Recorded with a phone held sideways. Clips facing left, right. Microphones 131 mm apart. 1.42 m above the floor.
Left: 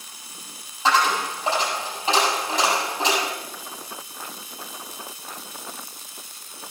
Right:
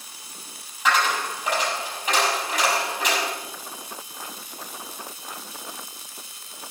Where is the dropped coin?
25° left (ahead or behind), 6.5 m.